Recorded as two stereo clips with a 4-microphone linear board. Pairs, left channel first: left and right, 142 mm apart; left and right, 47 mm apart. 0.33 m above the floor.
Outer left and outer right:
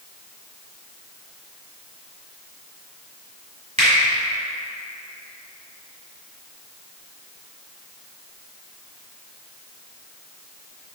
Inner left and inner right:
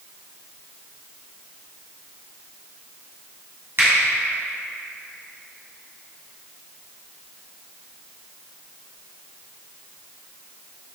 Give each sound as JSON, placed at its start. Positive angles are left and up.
{"t": 3.8, "sound": "a finger snap", "side_deg": -60, "distance_m": 2.0}